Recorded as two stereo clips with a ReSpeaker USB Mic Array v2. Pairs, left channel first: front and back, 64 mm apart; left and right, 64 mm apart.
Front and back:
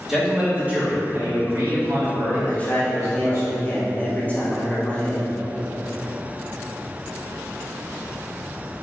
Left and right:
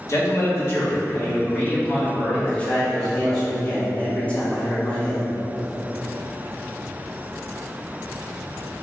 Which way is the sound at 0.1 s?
95° left.